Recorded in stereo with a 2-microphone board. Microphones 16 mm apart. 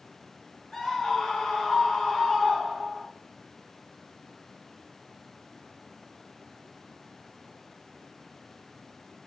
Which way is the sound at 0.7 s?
65° left (ahead or behind).